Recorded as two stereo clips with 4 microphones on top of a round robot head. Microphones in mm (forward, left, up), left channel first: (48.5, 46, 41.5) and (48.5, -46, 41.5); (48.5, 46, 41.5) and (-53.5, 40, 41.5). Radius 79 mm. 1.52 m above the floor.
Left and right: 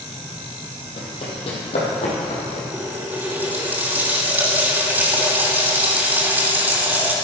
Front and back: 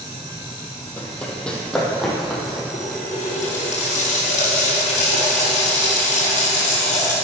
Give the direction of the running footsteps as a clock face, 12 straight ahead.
9 o'clock.